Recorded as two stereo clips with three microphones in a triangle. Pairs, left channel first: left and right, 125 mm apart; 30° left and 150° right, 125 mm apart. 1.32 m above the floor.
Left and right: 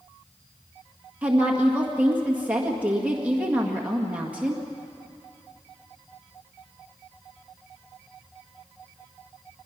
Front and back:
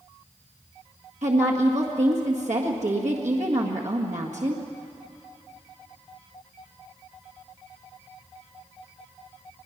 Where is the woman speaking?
170° right, 1.8 m.